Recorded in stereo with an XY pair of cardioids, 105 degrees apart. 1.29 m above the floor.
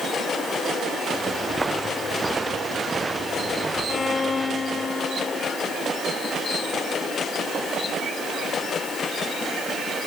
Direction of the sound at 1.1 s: 20° right.